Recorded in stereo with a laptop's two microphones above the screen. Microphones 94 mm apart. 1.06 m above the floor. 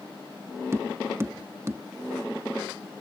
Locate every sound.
0.7 s tapping: 30° right (ahead or behind)